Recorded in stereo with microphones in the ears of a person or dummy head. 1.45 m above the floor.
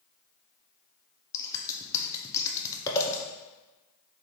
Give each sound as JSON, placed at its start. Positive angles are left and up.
{"t": 1.3, "sound": "scissors", "side_deg": 15, "distance_m": 0.6}